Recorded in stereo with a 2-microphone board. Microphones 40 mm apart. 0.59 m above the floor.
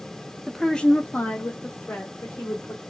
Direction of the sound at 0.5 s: Centre (ahead or behind).